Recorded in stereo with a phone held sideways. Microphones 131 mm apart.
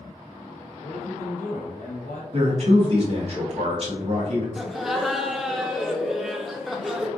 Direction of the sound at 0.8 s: 80° left.